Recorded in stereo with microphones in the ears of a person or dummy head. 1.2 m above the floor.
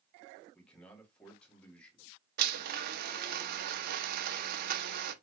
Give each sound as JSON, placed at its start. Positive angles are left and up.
{"t": 0.5, "sound": "a man speaking", "side_deg": 5, "distance_m": 1.9}
{"t": 2.4, "sound": "a blender", "side_deg": -65, "distance_m": 0.7}